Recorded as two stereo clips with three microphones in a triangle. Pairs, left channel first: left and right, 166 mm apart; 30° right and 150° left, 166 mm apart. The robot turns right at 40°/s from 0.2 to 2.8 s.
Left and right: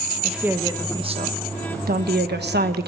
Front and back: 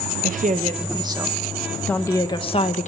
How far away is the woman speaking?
About 1.4 m.